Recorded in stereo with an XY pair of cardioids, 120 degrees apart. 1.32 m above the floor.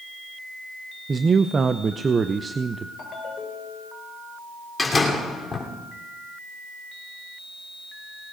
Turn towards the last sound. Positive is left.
turn(degrees=15)